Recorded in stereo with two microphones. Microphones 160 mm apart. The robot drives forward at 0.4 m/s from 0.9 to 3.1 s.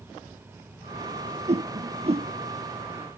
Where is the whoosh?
45° right (ahead or behind); by 2.3 s 40° right (ahead or behind).